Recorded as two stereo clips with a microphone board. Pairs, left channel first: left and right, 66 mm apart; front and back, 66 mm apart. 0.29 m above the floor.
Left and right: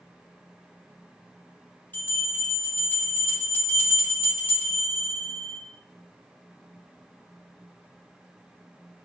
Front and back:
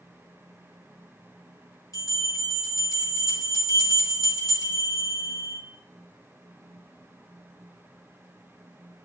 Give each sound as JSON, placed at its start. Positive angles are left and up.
{"t": 1.9, "sound": "a bell", "azimuth_deg": 30, "distance_m": 3.5}